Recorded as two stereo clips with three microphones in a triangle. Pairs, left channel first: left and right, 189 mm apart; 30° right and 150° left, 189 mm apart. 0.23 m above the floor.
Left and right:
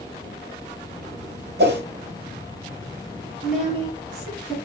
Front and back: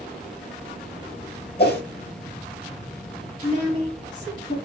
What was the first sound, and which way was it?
A whoosh, 60° right.